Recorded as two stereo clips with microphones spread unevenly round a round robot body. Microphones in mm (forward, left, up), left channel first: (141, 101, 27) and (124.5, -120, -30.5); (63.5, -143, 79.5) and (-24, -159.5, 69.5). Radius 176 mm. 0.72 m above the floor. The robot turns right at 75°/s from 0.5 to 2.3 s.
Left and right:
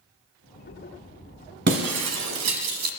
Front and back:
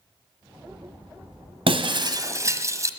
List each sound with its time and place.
1.7 s breaking glass: 160° right, 1.2 m; by 2.9 s 110° right, 1.2 m